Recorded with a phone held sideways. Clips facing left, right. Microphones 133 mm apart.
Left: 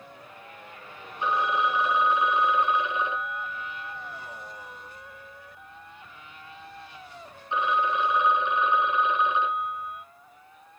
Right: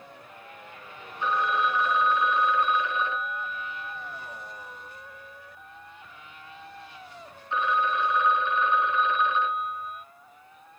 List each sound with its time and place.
1.2 s a phone ringing: 15° left (ahead or behind), 0.5 m